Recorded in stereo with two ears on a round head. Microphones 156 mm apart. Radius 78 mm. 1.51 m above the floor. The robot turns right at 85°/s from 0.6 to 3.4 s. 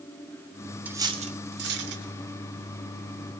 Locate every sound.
0.8 s cutlery clinking: 10° right (ahead or behind), 2.5 m; by 2.0 s 65° right (ahead or behind), 2.5 m